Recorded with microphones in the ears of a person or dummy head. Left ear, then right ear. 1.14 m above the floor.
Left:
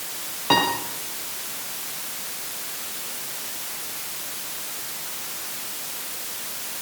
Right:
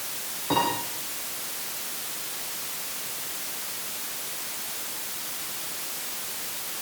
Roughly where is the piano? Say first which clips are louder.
Left 5 dB; left.